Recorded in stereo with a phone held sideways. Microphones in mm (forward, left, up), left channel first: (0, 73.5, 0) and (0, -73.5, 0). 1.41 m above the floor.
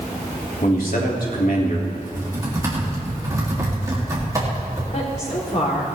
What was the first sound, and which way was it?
A man speaking, 75° left (ahead or behind).